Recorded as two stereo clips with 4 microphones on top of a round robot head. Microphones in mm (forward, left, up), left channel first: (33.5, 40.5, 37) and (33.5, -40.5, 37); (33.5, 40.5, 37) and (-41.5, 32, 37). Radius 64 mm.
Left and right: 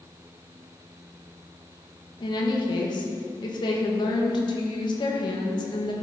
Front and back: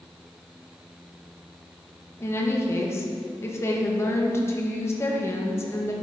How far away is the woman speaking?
About 1.5 m.